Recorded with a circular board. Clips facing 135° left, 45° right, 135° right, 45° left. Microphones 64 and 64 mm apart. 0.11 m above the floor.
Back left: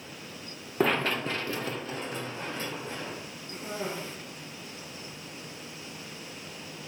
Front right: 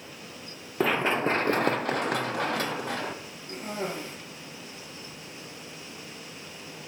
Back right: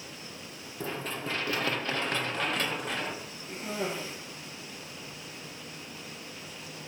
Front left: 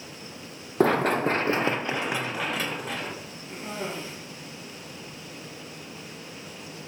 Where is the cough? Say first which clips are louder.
Front right 2 dB, even; 55° right, 3 m.